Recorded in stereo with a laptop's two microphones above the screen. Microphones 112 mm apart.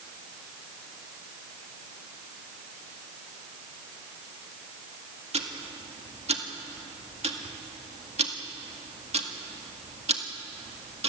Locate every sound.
5.3 s ticking: 65° right (ahead or behind), 1.9 m